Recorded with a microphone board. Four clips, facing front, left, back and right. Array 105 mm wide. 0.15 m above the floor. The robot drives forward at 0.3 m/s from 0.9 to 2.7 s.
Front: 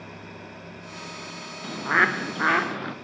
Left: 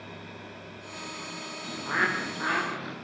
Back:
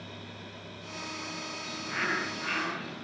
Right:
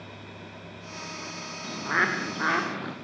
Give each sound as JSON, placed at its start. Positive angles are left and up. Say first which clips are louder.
{"t": 1.6, "sound": "a bird", "louder": "right 2 dB, front 12 dB", "azimuth_deg": -15, "distance_m": 3.5}